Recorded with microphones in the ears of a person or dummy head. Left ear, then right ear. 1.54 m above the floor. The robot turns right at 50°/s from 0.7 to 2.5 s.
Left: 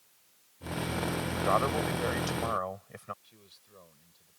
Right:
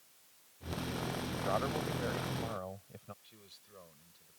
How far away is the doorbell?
No doorbell in this recording.